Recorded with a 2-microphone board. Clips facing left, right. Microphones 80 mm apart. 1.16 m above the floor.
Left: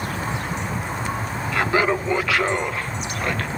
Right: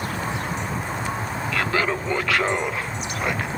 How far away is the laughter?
About 1.2 m.